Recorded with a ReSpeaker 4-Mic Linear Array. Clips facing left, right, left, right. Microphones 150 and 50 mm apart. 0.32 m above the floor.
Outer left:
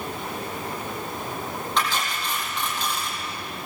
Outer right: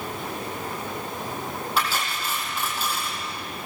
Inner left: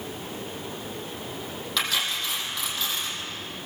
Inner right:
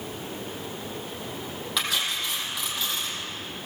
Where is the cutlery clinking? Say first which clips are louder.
Outer left 1 dB, inner left 1 dB; 5° right (ahead or behind), 6 m.